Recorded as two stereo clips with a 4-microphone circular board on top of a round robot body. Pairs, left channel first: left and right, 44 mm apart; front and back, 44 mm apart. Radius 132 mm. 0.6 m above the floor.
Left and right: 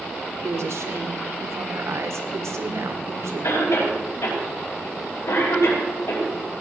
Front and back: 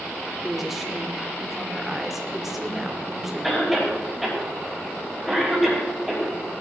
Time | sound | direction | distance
0.4 | a woman speaking | 95° right | 1.9 m
3.4 | a cough | 85° left | 4.5 m